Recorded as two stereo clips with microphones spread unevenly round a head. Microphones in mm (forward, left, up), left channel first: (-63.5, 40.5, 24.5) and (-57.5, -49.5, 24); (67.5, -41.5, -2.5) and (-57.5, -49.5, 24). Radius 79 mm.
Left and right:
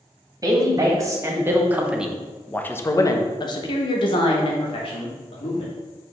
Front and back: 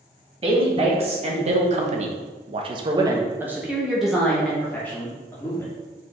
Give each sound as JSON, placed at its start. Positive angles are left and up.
{"t": 0.4, "sound": "a woman speaking", "azimuth_deg": -135, "distance_m": 1.7}